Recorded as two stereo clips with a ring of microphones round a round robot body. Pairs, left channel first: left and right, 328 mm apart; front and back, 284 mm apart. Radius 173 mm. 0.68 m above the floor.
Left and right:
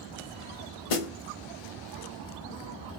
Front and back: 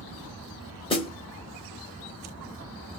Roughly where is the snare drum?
Left.